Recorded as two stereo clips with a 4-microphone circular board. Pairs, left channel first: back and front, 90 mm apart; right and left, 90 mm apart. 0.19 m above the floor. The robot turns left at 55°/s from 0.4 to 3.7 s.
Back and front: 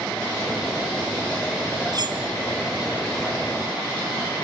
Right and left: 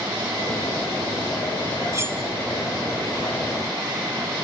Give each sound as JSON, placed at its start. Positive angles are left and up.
{"t": 1.9, "sound": "cutlery clinking", "azimuth_deg": 35, "distance_m": 2.0}